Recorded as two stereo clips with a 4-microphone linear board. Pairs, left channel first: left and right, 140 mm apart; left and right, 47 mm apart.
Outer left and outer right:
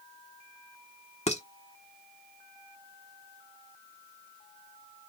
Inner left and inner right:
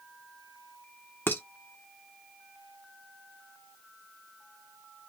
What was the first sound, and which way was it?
Dishes clattering, 50° left (ahead or behind).